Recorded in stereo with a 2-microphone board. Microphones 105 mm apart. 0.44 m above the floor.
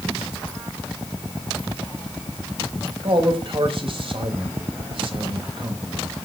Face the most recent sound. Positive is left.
turn(degrees=-55)  # may be behind; listen again after turning